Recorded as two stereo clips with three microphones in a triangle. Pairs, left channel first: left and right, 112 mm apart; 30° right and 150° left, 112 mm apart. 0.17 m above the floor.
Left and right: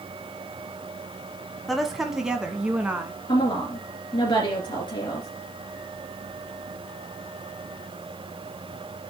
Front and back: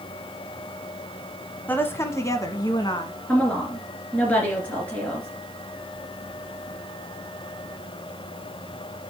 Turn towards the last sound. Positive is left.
turn(degrees=45)